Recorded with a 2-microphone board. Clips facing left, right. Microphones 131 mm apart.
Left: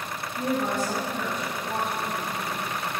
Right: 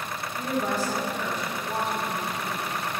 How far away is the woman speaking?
About 2.0 m.